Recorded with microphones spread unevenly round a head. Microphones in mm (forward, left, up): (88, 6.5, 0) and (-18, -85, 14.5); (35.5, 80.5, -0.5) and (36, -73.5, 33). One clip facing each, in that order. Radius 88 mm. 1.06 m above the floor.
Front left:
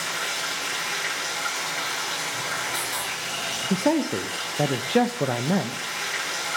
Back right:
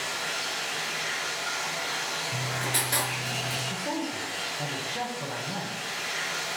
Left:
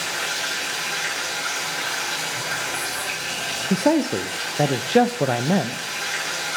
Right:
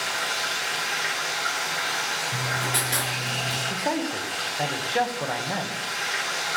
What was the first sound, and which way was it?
Running water, 50° left.